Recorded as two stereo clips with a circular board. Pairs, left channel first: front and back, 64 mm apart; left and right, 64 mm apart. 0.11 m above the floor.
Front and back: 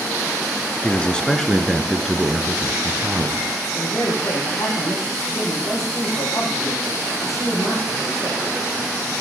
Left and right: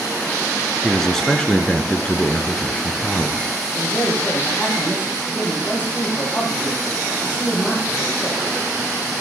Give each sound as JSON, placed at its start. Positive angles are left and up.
{"t": 0.8, "sound": "a man speaking", "azimuth_deg": 10, "distance_m": 1.4}
{"t": 3.8, "sound": "a man speaking", "azimuth_deg": 25, "distance_m": 7.5}